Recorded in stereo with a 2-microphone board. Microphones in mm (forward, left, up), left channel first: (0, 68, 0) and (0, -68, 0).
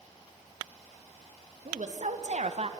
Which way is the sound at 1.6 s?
65° right (ahead or behind).